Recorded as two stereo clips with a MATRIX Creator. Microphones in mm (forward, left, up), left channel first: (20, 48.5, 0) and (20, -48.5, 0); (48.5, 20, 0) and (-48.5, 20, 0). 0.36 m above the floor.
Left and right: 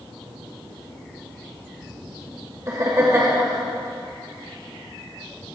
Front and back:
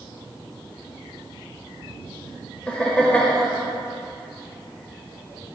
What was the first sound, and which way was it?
Laughter, 70° right.